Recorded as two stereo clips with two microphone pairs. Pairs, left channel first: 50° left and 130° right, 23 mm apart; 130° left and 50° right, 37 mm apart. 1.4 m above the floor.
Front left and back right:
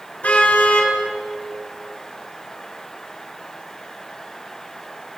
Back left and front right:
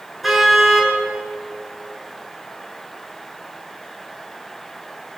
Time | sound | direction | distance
0.2 | a car horn | 40° left | 7 m